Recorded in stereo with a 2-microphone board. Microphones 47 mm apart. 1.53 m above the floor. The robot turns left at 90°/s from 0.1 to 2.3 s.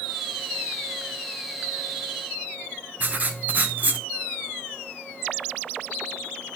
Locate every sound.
3.0 s writing: 35° right (ahead or behind), 0.8 m